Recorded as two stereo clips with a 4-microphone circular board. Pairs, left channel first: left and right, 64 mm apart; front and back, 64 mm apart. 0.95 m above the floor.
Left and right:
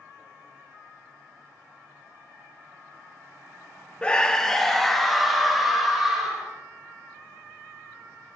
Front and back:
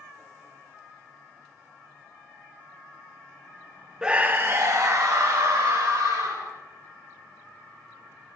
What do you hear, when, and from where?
4.0 s a scream: 120° left, 0.7 m; by 6.5 s 175° right, 3 m